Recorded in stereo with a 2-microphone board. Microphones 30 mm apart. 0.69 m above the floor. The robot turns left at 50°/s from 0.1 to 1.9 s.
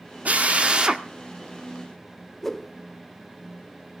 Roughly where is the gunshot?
I don't hear a gunshot.